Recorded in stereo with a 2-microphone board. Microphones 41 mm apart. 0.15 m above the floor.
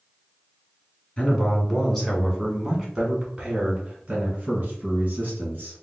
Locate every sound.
1.2 s a man speaking: 25° left (ahead or behind), 1.5 m; by 5.8 s 45° right (ahead or behind), 2 m